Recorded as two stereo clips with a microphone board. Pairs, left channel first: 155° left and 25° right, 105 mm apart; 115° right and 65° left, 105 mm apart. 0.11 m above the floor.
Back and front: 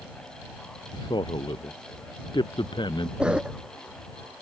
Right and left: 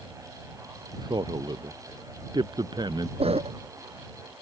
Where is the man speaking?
115° left.